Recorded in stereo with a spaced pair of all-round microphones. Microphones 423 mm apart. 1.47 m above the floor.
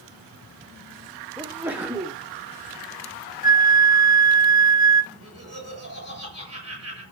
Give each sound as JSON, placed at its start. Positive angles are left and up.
{"t": 1.4, "sound": "a sneeze", "side_deg": -5, "distance_m": 0.8}
{"t": 3.4, "sound": "a flute", "side_deg": 20, "distance_m": 0.8}
{"t": 5.1, "sound": "laughter", "side_deg": -35, "distance_m": 6.0}